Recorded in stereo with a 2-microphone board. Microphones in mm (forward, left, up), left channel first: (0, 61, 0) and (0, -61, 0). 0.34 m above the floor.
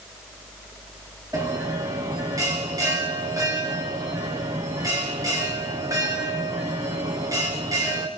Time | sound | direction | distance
1.3 | a bell | 25° right (ahead or behind) | 5.5 m